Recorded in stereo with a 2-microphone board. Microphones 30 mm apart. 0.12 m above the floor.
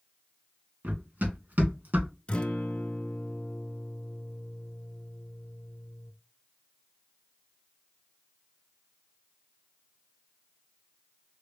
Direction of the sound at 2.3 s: 35° left (ahead or behind).